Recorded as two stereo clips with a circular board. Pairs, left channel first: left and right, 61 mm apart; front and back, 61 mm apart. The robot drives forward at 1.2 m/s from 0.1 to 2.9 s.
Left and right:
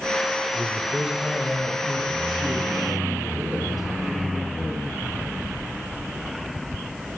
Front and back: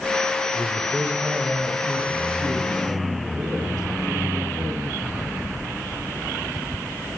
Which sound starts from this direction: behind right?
A man speaking, at 0.5 s.